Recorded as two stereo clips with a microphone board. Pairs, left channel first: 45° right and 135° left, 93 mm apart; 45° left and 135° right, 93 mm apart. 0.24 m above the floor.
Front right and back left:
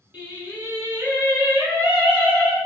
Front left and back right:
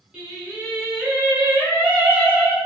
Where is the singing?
170° left, 1.0 m.